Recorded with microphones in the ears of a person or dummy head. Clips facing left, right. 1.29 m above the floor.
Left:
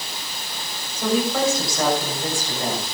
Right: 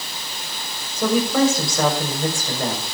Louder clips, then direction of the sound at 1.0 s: Right 3 dB; 55° right (ahead or behind).